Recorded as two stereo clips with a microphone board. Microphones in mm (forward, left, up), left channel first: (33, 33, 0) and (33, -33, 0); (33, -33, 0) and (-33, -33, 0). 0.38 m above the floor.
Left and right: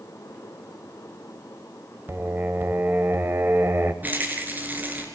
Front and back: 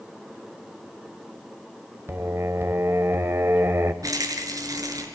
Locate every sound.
2.1 s singing: 140° right, 1.5 m
4.0 s a rattle: 155° right, 5 m